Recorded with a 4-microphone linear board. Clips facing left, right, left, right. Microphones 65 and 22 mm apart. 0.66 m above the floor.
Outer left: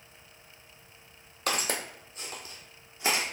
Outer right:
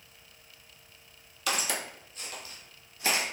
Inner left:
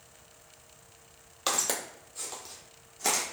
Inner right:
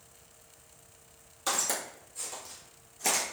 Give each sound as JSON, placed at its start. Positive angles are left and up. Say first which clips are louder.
{"t": 1.5, "sound": "footsteps", "louder": "outer left 1 dB, inner left 1 dB", "side_deg": 45, "distance_m": 0.8}